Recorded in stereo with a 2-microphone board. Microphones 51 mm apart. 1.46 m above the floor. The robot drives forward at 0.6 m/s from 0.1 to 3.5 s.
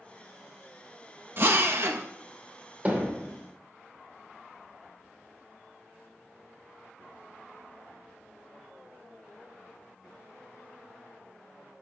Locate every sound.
1.4 s a drill: 50° right (ahead or behind), 1.0 m; by 2.0 s 55° right (ahead or behind), 0.9 m
2.9 s hammering: 30° right (ahead or behind), 3.5 m